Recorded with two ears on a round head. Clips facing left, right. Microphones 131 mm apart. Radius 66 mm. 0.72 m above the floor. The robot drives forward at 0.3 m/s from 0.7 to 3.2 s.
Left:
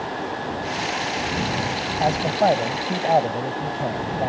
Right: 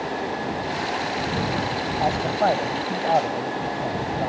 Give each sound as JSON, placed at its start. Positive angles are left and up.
{"t": 2.0, "sound": "a man speaking", "side_deg": 25}